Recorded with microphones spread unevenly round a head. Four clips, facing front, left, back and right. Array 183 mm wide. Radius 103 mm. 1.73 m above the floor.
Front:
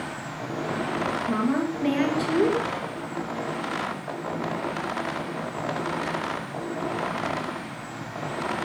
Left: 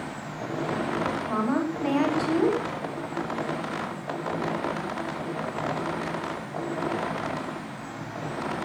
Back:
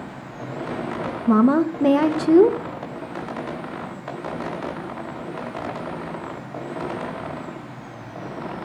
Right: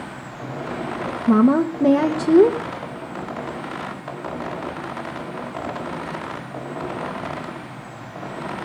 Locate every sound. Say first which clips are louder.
1.3 s a woman speaking: right 14 dB, back 11 dB; 135° right, 1.7 m